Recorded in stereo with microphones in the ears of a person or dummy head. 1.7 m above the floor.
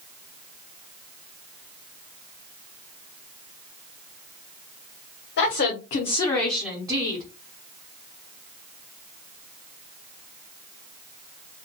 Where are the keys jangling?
No keys jangling in this recording.